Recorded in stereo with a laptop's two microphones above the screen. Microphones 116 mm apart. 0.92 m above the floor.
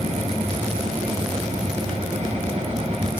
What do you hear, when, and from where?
0.0 s a machine running: 80° right, 1.8 m